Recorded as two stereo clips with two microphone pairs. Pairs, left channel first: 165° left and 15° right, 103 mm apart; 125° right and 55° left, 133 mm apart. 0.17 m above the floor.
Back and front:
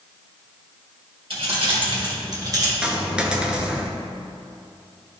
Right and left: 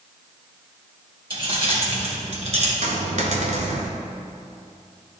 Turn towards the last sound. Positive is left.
turn(degrees=65)